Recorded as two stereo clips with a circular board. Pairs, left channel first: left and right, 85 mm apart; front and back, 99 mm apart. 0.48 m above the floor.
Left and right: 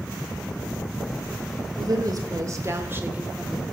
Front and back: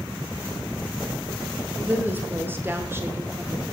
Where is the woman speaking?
115° right, 2 m; by 3.6 s straight behind, 1.1 m.